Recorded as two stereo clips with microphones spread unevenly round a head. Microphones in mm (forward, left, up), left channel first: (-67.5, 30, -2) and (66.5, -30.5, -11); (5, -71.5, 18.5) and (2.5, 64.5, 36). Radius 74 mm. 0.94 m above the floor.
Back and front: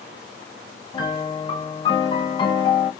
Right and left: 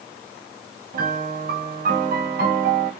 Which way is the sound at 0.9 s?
95° left.